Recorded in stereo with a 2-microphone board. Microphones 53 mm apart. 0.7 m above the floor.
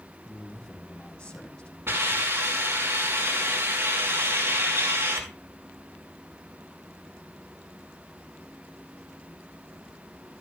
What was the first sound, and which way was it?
A man speaking, 20° left (ahead or behind).